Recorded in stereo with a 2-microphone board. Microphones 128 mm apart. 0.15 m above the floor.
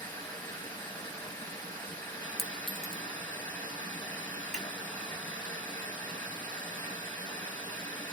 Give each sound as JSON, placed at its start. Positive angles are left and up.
{"t": 0.0, "sound": "running water", "side_deg": 15, "distance_m": 1.7}
{"t": 2.4, "sound": "a clink", "side_deg": 0, "distance_m": 0.9}
{"t": 4.5, "sound": "scissors", "side_deg": -75, "distance_m": 2.0}